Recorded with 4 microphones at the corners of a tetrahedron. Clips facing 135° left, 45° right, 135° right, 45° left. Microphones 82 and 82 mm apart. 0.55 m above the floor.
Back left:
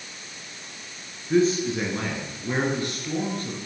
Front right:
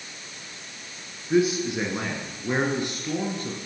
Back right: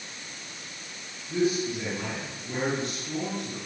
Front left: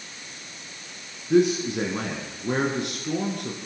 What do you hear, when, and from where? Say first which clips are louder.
1.3 s a man speaking: back left 1 dB, front left 6 dB; 35° left, 6 m; by 3.6 s 20° left, 7.5 m